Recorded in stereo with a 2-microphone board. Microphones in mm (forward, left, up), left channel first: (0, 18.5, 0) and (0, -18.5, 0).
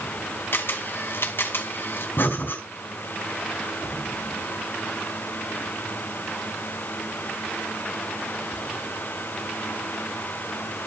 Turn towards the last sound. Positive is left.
turn(degrees=75)  # may be behind; listen again after turning